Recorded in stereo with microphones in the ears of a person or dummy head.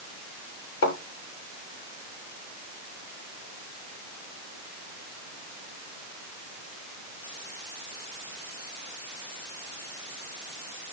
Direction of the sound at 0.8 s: 80° left.